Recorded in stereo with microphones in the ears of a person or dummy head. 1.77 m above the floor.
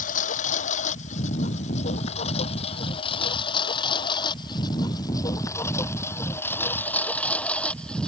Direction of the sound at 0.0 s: 50° left (ahead or behind).